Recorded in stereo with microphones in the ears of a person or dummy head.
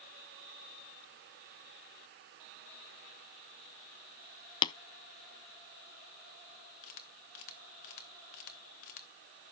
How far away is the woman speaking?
No woman speaking in this recording.